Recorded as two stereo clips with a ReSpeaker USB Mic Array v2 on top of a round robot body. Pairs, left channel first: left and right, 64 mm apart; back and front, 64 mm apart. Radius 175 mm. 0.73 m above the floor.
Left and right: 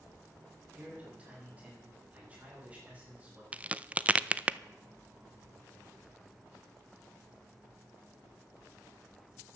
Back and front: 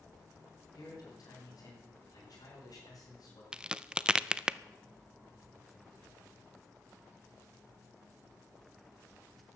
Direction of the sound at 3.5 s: 55° right.